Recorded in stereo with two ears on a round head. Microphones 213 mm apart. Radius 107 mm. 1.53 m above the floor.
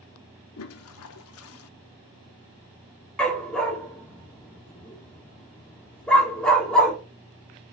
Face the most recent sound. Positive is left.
turn(degrees=5)  # may be behind; listen again after turning